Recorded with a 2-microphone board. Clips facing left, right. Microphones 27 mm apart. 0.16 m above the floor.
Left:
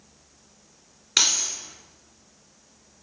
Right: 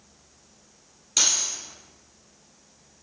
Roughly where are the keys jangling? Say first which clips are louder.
Left 3 dB; left.